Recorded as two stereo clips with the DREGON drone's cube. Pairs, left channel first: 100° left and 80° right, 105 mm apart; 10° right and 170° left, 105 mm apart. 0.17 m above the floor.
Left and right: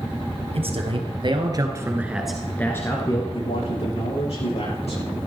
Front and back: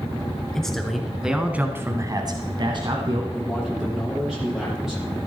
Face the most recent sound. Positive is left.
turn(degrees=85)